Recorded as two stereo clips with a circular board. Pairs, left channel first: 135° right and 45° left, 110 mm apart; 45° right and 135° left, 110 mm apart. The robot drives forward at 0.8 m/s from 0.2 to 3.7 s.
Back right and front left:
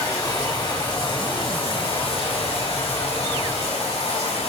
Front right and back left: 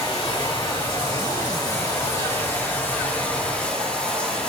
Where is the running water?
80° right, 3.5 m; by 4.5 s 125° right, 4 m.